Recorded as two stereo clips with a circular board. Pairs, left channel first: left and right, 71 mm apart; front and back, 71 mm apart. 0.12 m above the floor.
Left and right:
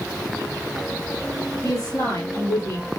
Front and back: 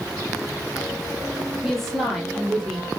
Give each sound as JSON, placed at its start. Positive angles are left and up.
{"t": 1.6, "sound": "a woman speaking", "azimuth_deg": 85, "distance_m": 2.0}